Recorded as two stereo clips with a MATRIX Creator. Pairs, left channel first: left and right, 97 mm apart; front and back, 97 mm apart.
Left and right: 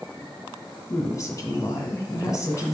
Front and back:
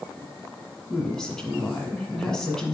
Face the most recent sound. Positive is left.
turn(degrees=75)